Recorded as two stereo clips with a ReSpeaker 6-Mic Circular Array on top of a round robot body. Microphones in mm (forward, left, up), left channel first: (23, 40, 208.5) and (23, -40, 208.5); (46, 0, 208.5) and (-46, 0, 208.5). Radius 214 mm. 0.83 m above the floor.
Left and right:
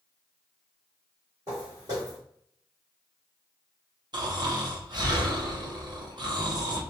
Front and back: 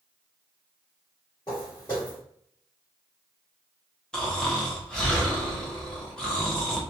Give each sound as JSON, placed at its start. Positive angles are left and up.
{"t": 1.5, "sound": "footsteps", "azimuth_deg": -60, "distance_m": 0.9}
{"t": 4.1, "sound": "snoring", "azimuth_deg": -80, "distance_m": 1.1}